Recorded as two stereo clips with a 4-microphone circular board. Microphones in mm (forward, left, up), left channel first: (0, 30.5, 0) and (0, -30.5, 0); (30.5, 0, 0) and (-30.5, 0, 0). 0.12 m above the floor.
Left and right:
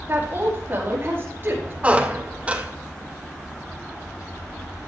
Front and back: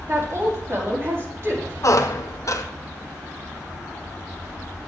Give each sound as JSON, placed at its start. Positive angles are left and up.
{"t": 0.1, "sound": "a woman speaking", "azimuth_deg": -140, "distance_m": 5.0}
{"t": 1.8, "sound": "a squeak", "azimuth_deg": -25, "distance_m": 1.0}